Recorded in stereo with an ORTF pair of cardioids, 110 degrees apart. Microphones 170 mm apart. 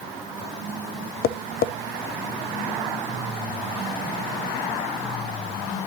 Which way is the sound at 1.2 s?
65° left.